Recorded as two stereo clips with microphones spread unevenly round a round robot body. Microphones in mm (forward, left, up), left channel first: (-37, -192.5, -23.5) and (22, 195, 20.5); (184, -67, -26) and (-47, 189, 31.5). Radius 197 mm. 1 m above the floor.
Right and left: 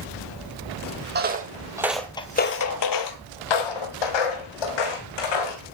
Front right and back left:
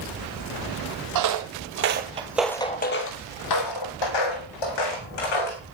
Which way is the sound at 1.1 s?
140° left.